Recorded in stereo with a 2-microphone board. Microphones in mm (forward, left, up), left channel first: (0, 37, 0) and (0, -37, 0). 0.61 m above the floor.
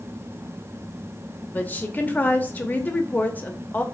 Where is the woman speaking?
25° left (ahead or behind), 0.8 m.